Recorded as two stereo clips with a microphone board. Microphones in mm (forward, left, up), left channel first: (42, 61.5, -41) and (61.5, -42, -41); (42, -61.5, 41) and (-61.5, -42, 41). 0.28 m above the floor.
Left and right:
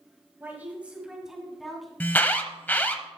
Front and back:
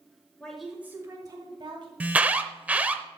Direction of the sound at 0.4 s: 65° right.